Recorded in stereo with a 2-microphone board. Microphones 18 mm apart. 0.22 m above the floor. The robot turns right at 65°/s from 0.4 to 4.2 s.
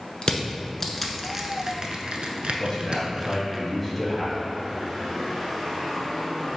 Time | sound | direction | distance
0.2 | crushing | 45° left (ahead or behind) | 0.5 m
2.6 | a man speaking | 25° left (ahead or behind) | 1.2 m